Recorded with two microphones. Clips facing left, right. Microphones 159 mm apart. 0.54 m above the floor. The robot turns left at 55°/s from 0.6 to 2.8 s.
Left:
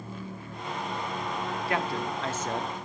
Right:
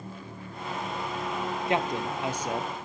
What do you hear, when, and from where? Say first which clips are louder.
1.7 s a man speaking: right 3 dB; 20° right (ahead or behind), 0.6 m; by 2.7 s 5° right (ahead or behind), 0.6 m